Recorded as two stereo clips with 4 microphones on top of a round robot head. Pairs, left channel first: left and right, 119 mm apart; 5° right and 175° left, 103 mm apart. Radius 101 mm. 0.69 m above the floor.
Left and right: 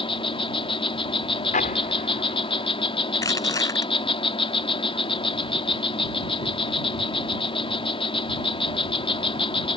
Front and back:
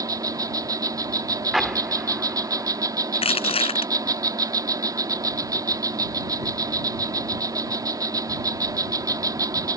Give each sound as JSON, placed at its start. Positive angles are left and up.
{"t": 0.0, "sound": "an insect", "azimuth_deg": 125}
{"t": 1.5, "sound": "an explosion", "azimuth_deg": 90}
{"t": 3.1, "sound": "crushing", "azimuth_deg": 20}